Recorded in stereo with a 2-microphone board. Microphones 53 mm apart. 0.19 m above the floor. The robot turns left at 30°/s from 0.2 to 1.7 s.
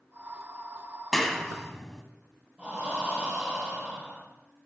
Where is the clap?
5° left (ahead or behind), 0.8 m; by 2.0 s 10° left (ahead or behind), 0.8 m.